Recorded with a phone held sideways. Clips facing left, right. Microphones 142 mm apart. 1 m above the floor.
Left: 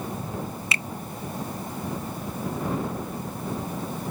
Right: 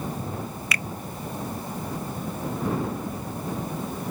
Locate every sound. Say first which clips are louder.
0.7 s a finger snap: right 1 dB; 25° left (ahead or behind)